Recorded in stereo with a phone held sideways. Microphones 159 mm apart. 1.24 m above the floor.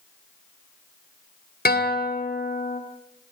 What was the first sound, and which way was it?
A guitar, 80° left.